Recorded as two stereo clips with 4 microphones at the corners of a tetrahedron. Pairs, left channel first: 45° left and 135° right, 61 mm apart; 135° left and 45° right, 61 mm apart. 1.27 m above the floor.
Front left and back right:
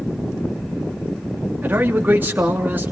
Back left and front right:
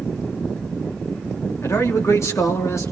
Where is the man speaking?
170° left, 3.5 m.